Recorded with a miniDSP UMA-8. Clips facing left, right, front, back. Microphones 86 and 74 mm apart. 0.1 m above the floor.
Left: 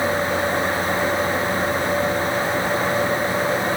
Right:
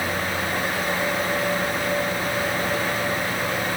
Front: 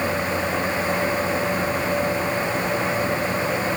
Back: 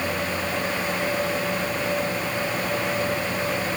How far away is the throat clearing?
I don't hear throat clearing.